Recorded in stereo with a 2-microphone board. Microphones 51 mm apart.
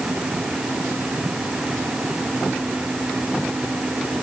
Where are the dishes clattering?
I don't hear dishes clattering.